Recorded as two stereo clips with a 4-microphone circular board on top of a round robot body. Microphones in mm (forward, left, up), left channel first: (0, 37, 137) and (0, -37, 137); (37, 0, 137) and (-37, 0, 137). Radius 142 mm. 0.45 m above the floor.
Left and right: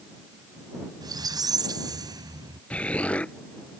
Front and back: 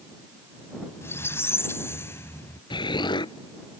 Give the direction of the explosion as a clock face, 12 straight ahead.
12 o'clock.